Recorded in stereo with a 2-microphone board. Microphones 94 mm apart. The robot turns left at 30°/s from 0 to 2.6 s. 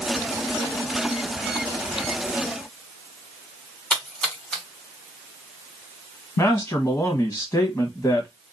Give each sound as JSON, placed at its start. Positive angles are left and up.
{"t": 3.9, "sound": "a splash", "side_deg": 10, "distance_m": 2.0}
{"t": 6.4, "sound": "a man speaking", "side_deg": 30, "distance_m": 1.3}